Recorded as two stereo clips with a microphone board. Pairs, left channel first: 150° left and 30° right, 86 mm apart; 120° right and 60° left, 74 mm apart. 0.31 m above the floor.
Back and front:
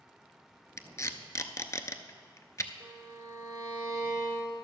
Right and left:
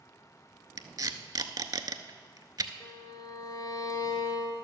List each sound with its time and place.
0.8 s tape being pulled: 95° left, 0.6 m
2.8 s a violin: 85° right, 2.0 m